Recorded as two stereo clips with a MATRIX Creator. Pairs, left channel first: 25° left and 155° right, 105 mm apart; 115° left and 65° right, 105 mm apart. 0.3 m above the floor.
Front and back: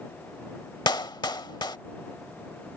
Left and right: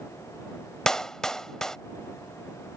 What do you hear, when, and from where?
0.9 s a clap: 30° left